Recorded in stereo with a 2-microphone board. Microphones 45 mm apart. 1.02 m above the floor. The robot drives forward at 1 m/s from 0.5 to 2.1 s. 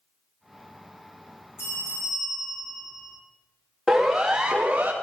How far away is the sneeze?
No sneeze in this recording.